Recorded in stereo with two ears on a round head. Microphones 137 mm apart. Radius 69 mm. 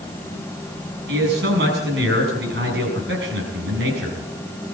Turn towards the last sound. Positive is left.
turn(degrees=-75)  # may be behind; listen again after turning